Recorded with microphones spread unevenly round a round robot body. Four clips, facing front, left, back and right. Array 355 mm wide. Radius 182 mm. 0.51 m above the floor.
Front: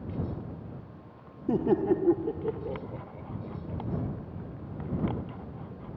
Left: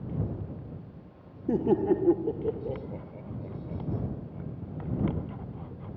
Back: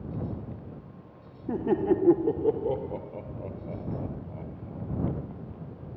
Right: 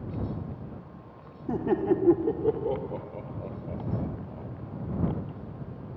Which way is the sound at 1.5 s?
25° left.